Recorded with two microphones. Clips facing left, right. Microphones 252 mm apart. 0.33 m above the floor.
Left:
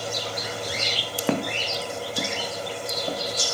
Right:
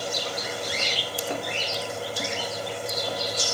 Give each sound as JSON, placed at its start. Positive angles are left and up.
{"t": 1.3, "sound": "footsteps", "side_deg": 75, "distance_m": 1.9}